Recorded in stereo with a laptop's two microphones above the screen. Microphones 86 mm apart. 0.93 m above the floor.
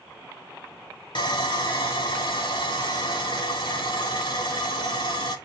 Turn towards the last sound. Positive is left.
turn(degrees=70)  # may be behind; listen again after turning